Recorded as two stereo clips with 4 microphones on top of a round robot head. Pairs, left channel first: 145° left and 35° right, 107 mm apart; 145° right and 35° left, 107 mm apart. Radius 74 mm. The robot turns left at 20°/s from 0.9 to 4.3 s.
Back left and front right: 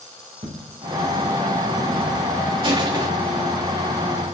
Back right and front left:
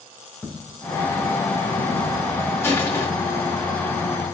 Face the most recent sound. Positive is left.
turn(degrees=-110)